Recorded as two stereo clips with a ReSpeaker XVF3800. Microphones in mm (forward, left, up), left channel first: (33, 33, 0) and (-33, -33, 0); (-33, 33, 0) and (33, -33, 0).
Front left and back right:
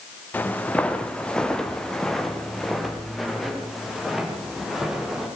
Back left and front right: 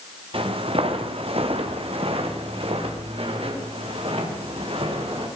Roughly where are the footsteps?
Ahead right.